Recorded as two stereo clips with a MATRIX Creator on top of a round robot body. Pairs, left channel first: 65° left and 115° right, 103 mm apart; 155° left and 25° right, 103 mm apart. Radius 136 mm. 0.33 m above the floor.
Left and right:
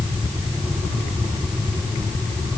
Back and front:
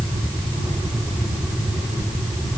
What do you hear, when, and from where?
Only background noise.